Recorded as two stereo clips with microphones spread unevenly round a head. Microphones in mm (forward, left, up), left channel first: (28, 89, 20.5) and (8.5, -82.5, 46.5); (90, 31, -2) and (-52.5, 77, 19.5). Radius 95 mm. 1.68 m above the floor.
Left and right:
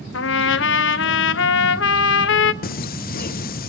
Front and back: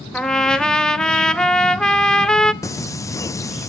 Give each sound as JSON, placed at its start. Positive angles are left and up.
{"t": 0.1, "sound": "a trumpet", "azimuth_deg": 70, "distance_m": 0.8}
{"t": 2.6, "sound": "singing", "azimuth_deg": 50, "distance_m": 0.5}